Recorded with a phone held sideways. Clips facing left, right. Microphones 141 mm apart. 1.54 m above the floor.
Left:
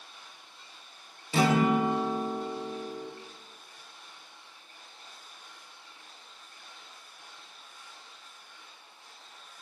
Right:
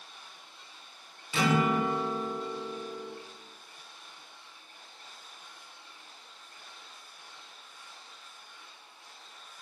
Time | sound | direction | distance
1.3 | a guitar | 40° left (ahead or behind) | 0.9 m